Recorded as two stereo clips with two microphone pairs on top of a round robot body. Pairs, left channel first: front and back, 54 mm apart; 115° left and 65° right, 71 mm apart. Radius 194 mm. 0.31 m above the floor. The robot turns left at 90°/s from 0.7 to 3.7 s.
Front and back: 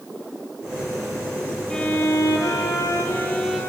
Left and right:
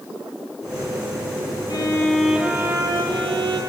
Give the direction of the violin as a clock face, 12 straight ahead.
9 o'clock.